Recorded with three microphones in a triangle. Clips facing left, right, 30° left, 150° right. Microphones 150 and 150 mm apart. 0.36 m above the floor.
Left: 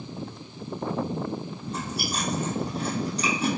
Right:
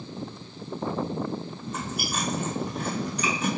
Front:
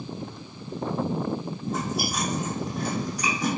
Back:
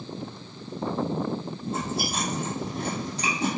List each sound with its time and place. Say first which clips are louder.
1.7 s chewing: left 1 dB, front 1 dB; 150° left, 2 m